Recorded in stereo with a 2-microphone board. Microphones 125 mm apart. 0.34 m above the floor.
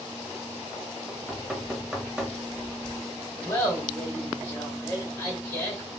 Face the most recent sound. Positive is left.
turn(degrees=15)  # may be behind; listen again after turning